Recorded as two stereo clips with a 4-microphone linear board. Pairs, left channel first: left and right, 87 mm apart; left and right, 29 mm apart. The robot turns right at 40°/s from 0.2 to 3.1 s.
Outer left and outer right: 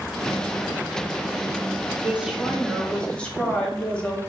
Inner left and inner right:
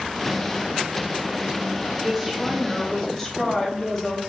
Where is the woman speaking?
25° right, 0.8 m; by 4.2 s 20° left, 0.8 m.